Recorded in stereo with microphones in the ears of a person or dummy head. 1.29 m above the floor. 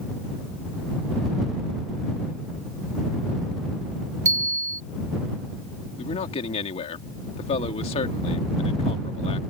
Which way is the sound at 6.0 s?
30° left (ahead or behind).